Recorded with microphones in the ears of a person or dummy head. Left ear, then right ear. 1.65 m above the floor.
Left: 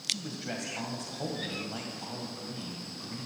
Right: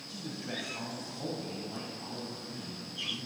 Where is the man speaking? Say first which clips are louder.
Left 6 dB; 30° left (ahead or behind), 1.5 m.